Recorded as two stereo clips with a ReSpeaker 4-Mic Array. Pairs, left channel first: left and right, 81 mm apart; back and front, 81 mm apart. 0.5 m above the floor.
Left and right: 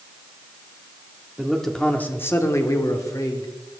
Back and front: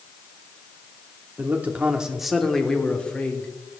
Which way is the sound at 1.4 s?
10° right.